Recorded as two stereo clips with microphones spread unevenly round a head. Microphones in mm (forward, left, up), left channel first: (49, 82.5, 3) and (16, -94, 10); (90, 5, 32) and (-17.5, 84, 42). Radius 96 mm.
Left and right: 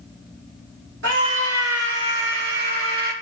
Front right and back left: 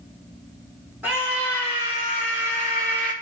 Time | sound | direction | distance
1.0 | a scream | 135° right | 4 m